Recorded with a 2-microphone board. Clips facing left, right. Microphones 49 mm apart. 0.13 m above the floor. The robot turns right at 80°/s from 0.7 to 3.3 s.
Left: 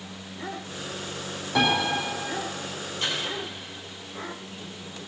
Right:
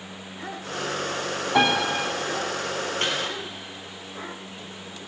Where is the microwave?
45° right (ahead or behind), 2.5 m; by 3.2 s 55° right (ahead or behind), 2.5 m.